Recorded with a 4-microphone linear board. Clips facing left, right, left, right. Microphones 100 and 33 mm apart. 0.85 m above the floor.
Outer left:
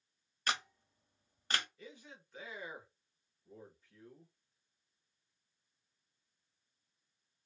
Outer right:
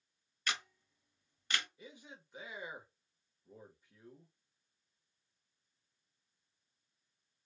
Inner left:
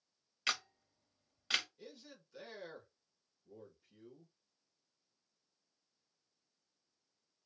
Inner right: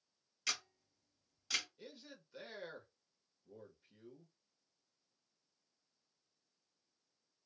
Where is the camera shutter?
40° left (ahead or behind), 0.6 m.